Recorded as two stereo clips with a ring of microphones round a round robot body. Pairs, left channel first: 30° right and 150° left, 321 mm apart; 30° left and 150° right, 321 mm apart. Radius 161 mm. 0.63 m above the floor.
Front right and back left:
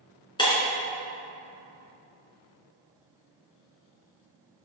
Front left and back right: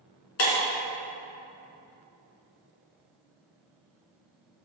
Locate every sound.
0.4 s breaking glass: 45° left, 2.5 m